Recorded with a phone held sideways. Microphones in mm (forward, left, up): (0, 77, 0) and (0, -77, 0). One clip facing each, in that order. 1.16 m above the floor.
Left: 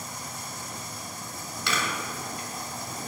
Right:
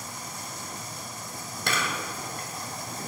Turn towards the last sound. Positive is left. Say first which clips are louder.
# even
turn(degrees=-50)  # may be behind; listen again after turning